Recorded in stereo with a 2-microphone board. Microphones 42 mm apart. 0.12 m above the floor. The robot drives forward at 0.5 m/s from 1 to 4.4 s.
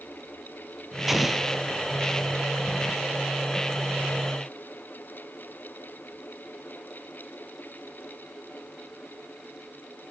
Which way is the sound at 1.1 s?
5° right (ahead or behind).